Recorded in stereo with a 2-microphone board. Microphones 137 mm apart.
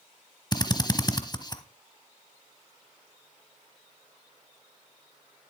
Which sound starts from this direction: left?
A drill, at 0.5 s.